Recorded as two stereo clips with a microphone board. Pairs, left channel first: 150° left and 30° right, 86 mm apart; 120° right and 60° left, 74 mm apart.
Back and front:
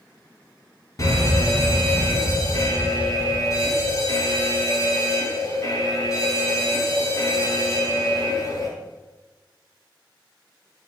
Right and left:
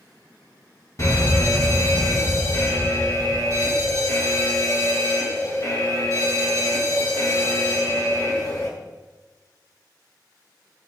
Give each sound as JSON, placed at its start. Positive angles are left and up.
{"t": 1.0, "sound": "an alarm", "azimuth_deg": -160, "distance_m": 4.0}